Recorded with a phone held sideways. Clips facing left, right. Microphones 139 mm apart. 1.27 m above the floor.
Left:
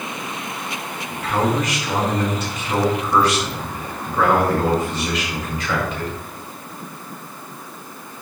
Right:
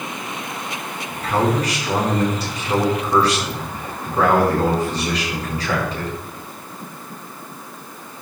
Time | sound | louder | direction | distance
1.1 | a man speaking | right 1 dB | 35° right (ahead or behind) | 4.5 m